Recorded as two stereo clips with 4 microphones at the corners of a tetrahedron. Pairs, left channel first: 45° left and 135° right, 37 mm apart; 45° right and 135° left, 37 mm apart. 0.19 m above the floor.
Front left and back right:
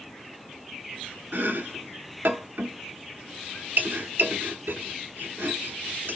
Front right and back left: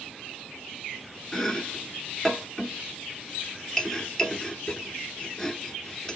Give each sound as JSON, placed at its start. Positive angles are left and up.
{"t": 1.3, "sound": "chopping", "azimuth_deg": -120, "distance_m": 0.9}